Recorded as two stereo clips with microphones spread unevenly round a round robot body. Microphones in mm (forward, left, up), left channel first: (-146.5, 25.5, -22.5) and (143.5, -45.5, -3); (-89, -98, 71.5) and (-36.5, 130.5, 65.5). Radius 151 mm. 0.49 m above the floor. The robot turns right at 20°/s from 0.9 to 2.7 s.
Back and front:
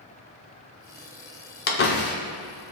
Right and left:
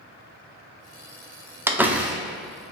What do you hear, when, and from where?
1.7 s a door slam: 150° left, 0.8 m; by 2.7 s 170° left, 0.8 m